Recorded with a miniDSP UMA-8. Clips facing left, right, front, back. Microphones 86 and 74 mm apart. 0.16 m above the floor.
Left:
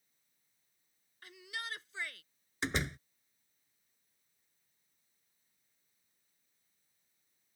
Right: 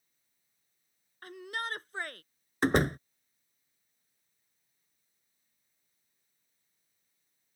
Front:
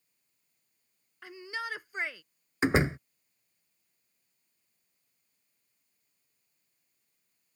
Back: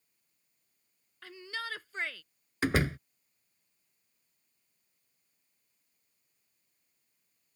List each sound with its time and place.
1.2 s a shout: 70° right
2.6 s a door slam: 65° right